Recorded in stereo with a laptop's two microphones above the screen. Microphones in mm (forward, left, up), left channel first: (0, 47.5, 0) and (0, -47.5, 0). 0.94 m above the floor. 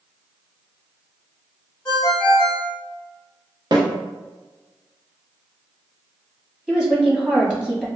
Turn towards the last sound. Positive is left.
turn(degrees=-5)  # may be behind; listen again after turning